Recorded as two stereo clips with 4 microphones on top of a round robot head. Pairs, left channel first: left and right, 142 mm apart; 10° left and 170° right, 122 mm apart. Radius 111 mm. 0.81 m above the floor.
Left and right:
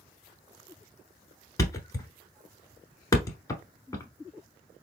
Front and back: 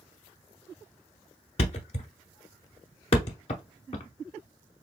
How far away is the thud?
About 1.0 m.